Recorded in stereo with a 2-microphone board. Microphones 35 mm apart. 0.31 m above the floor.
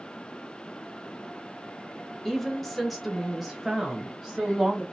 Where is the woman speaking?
5° left (ahead or behind), 0.9 m; by 4.8 s 10° right (ahead or behind), 1.4 m.